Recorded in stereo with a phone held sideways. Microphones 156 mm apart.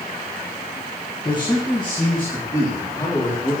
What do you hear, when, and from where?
1.2 s a man speaking: 25° left (ahead or behind), 1.3 m; by 3.5 s 30° left (ahead or behind), 3.5 m